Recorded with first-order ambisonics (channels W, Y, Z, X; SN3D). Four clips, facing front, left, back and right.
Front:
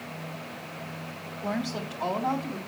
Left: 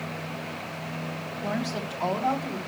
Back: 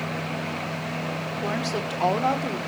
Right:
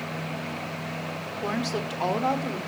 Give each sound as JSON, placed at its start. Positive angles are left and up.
{"t": 1.4, "sound": "a woman speaking", "azimuth_deg": -140, "distance_m": 1.7}